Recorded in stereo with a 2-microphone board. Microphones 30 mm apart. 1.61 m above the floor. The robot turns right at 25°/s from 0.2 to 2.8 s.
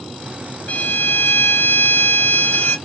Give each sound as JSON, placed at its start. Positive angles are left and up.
{"t": 0.7, "sound": "a violin", "azimuth_deg": 60, "distance_m": 0.7}